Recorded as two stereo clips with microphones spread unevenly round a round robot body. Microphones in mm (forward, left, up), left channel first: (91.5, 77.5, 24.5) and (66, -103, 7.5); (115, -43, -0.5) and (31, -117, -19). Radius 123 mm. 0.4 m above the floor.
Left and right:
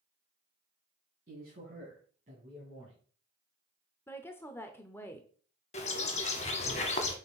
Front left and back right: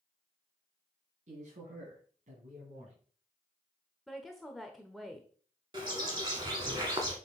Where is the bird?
145° left, 0.7 m.